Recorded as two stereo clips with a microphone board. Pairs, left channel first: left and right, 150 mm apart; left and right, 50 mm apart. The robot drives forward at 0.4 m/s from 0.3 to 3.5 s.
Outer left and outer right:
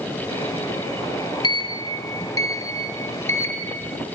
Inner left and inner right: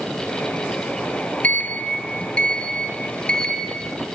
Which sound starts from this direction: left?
A sliding door, at 1.4 s.